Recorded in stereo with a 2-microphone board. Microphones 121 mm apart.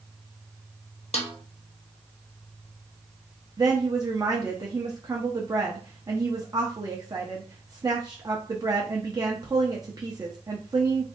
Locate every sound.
1.1 s a snare drum: 60° left (ahead or behind), 0.7 m
3.6 s a woman speaking: 30° right (ahead or behind), 0.5 m